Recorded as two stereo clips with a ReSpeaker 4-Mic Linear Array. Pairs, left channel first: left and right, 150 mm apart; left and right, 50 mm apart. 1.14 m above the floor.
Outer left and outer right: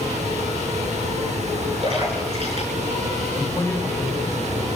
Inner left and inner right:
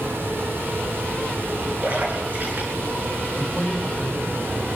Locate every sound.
1.8 s a splash: 45° right (ahead or behind), 6.5 m
3.4 s a man speaking: 15° left (ahead or behind), 4.5 m